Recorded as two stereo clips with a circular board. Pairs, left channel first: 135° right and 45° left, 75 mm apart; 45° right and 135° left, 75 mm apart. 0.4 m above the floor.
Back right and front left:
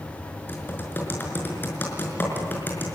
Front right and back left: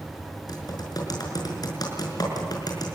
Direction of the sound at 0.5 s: 70° right.